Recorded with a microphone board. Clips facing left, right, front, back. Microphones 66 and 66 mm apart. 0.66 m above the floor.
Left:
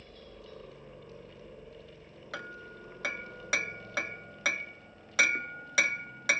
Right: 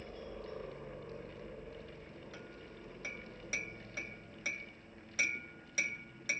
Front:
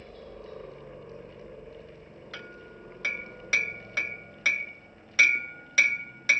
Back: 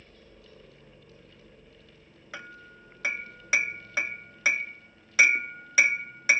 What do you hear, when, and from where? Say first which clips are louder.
0.0 s a helicopter: right 4 dB, front 10 dB; 20° right; by 6.4 s 55° left
2.3 s hammering: left 8 dB, back 1 dB; 105° left